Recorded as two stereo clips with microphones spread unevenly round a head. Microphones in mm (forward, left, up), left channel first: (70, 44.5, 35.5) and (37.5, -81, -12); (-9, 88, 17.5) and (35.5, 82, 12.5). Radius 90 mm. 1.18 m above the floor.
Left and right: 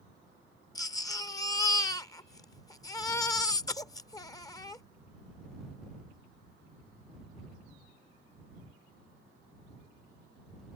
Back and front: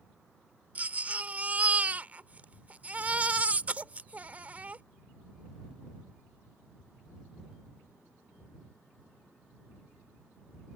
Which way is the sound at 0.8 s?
45° left.